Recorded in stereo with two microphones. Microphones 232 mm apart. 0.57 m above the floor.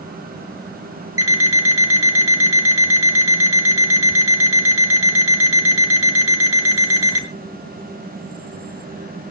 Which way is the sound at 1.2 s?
80° right.